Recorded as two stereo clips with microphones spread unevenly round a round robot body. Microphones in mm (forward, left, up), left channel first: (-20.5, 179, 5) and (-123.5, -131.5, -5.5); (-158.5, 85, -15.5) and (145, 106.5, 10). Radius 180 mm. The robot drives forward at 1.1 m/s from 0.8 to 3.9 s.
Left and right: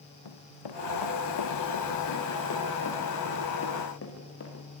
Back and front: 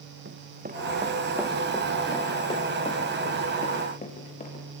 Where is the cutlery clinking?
I don't hear cutlery clinking.